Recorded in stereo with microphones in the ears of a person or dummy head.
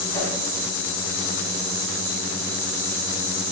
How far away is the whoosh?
About 1.6 m.